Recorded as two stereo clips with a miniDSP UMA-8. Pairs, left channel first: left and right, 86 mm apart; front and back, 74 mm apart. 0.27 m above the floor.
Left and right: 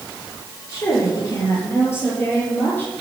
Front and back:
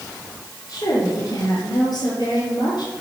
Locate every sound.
0.7 s a woman speaking: 35° left, 5.5 m; by 2.9 s 25° left, 6 m